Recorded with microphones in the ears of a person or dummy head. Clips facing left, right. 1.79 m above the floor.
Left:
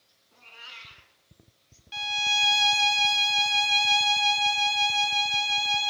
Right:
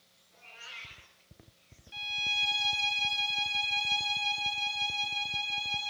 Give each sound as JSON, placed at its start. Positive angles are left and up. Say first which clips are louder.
{"t": 0.3, "sound": "a cat meowing", "louder": "left 1 dB", "side_deg": 60, "distance_m": 8.0}
{"t": 1.9, "sound": "a violin", "louder": "left 11 dB", "side_deg": 70, "distance_m": 1.0}